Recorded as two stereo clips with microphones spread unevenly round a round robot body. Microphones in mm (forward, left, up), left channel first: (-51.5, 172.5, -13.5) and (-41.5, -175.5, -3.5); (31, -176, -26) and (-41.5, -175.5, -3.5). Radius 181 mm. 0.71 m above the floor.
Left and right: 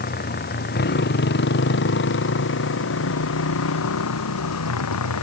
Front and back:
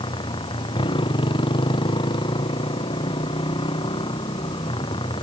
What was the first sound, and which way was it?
A motorcycle, 25° left.